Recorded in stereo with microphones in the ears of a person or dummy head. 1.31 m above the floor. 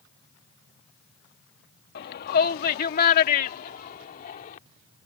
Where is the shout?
55° left (ahead or behind); by 4.6 s 45° left (ahead or behind).